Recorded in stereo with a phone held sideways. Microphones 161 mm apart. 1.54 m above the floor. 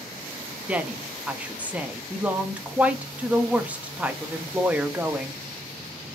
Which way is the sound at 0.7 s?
10° right (ahead or behind).